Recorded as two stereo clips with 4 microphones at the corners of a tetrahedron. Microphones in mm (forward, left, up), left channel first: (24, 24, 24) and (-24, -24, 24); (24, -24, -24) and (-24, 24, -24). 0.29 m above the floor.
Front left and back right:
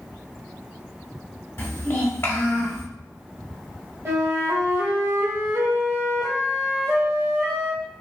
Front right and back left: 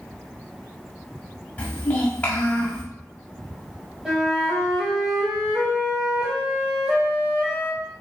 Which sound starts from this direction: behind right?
A flute, at 4.0 s.